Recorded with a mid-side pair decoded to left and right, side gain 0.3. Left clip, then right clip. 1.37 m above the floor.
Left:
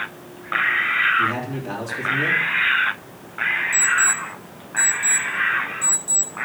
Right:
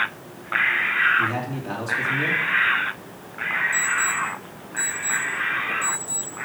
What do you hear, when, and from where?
1.2 s a man speaking: straight ahead, 4 m
3.7 s an alarm clock: 30° left, 5.5 m